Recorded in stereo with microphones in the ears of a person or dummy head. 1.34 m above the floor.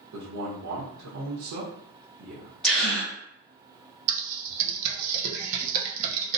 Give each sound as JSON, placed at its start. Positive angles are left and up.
{"t": 0.1, "sound": "a man speaking", "side_deg": -65, "distance_m": 1.0}
{"t": 2.6, "sound": "a gasp", "side_deg": -5, "distance_m": 0.7}
{"t": 4.1, "sound": "typing on a keyboard", "side_deg": -35, "distance_m": 0.5}